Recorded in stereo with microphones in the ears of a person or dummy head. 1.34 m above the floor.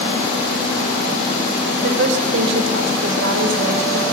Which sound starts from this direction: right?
A woman speaking, at 1.8 s.